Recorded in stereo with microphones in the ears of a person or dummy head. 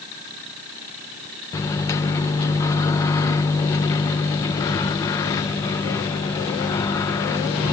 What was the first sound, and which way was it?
A microwave, 15° left (ahead or behind).